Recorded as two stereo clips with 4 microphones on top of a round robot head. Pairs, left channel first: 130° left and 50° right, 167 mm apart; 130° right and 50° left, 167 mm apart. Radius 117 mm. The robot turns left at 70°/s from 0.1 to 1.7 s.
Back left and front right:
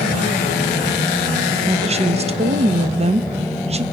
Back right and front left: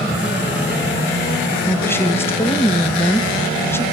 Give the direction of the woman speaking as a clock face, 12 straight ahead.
2 o'clock.